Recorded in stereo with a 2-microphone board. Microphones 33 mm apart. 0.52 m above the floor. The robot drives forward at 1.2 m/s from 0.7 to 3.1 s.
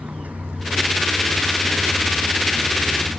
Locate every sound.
0.0 s a vehicle: 50° right (ahead or behind); by 3.2 s 60° right (ahead or behind)